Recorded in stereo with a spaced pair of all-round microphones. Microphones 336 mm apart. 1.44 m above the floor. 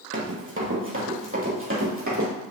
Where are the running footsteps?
35° right (ahead or behind), 2 m; by 2.3 s 40° right (ahead or behind), 3.5 m.